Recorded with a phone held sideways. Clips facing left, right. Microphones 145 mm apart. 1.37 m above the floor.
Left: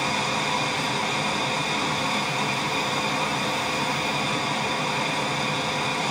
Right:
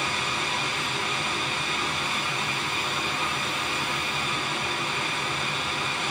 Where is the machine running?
40° left (ahead or behind), 0.7 m.